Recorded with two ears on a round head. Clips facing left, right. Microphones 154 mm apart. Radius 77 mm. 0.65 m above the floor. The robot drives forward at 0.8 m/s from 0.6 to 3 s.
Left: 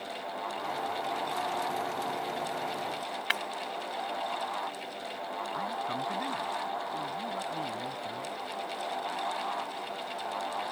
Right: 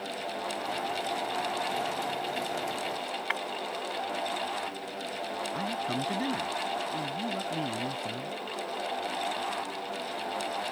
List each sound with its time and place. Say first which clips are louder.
3.3 s breaking glass: right 1 dB; 45° left (ahead or behind)
5.5 s a man speaking: right 2 dB; 30° right (ahead or behind)